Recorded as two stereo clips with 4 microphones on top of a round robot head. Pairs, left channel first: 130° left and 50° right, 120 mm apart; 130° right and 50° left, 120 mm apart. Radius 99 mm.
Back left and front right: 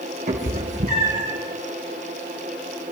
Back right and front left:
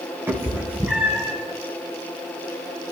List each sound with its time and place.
0.3 s a cat meowing: 20° right, 2 m; by 1.3 s 35° right, 3 m